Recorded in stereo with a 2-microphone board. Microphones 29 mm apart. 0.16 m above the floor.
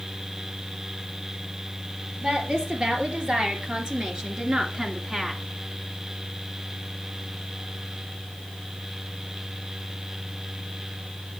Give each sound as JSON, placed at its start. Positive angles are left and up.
{"t": 2.2, "sound": "a woman speaking", "side_deg": -45, "distance_m": 4.0}